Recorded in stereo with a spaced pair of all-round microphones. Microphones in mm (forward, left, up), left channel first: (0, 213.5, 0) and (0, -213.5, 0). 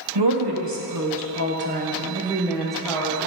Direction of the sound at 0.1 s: 70° right (ahead or behind).